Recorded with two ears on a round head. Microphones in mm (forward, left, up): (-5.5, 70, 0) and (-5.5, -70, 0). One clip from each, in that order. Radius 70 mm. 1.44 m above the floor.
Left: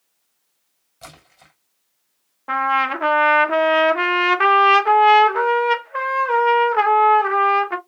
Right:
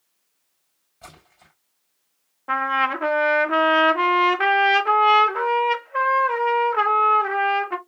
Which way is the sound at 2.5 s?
10° left (ahead or behind).